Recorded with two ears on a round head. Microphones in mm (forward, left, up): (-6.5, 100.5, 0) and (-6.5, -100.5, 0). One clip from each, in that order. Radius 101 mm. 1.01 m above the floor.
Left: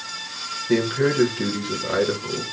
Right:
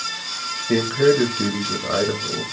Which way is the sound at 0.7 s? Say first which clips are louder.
Right 4 dB; 10° right (ahead or behind).